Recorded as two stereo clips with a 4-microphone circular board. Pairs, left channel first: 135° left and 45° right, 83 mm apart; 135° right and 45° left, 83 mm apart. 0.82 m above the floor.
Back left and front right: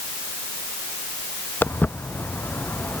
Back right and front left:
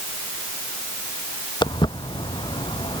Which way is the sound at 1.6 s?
160° right.